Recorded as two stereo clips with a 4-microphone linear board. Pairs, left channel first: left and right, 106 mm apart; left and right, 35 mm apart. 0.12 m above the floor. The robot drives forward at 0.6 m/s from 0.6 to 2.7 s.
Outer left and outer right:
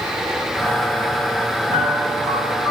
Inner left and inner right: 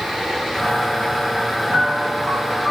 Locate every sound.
1.7 s a piano: 50° right (ahead or behind), 3 m; by 2.7 s 45° right (ahead or behind), 3.5 m